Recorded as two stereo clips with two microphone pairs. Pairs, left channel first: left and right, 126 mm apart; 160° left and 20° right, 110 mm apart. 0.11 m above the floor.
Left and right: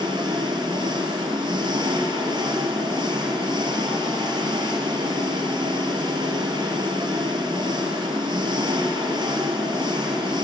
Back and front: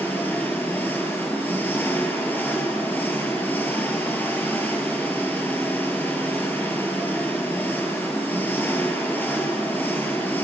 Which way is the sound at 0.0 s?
130° right.